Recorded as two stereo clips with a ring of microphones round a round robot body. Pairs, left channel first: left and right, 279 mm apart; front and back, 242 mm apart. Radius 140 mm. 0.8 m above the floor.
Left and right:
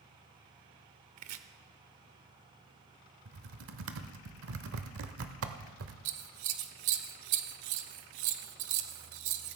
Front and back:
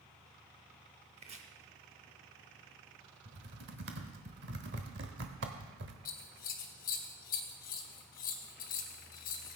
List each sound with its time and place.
1.2 s chopping: 115° right, 0.7 m
3.2 s typing on a keyboard: 130° right, 0.9 m
6.0 s scissors: 60° right, 0.9 m